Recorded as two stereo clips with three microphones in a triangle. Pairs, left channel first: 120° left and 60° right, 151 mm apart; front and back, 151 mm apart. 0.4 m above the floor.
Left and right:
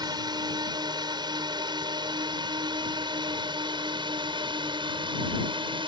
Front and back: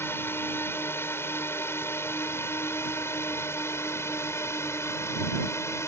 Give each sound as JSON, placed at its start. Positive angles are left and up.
{"t": 0.0, "sound": "a drone", "azimuth_deg": -55}